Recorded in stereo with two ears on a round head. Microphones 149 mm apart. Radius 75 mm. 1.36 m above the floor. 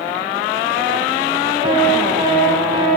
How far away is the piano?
About 1.1 m.